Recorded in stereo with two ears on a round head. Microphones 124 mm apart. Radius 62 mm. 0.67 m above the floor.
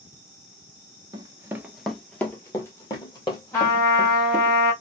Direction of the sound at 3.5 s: 20° left (ahead or behind).